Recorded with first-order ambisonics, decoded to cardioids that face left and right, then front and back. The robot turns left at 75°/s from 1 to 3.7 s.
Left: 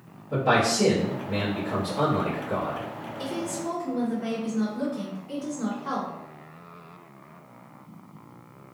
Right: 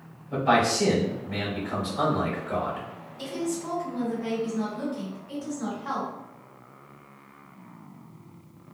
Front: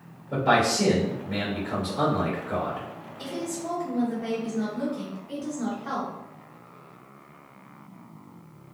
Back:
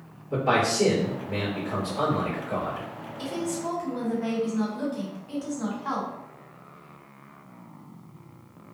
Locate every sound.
0.3 s a man speaking: 40° left, 1.3 m; by 2.9 s 105° right, 1.3 m
3.2 s a woman speaking: 125° right, 1.7 m; by 6.1 s 160° right, 1.7 m